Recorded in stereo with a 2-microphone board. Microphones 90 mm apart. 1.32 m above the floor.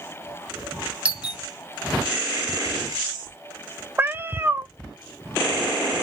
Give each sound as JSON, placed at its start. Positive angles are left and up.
{"t": 1.1, "sound": "a doorbell", "side_deg": -15, "distance_m": 0.7}
{"t": 4.0, "sound": "a cat meowing", "side_deg": -25, "distance_m": 0.5}